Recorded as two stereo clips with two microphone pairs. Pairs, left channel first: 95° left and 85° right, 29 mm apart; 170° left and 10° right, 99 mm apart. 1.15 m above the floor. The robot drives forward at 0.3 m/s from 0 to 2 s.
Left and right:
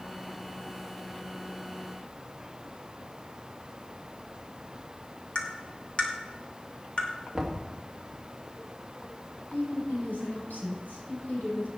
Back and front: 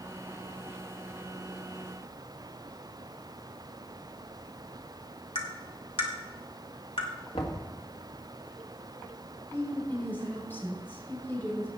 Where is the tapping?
145° left, 2.5 m.